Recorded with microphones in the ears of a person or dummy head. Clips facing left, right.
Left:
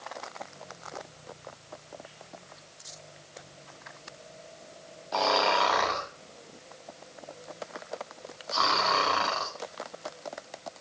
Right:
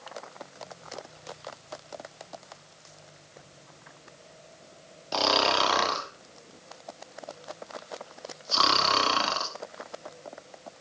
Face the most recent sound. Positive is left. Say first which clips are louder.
# even
turn(degrees=-45)  # may be behind; listen again after turning